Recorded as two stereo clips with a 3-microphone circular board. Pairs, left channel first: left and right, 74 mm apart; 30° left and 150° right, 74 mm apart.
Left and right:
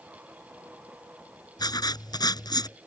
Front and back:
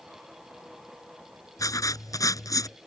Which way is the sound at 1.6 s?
70° left.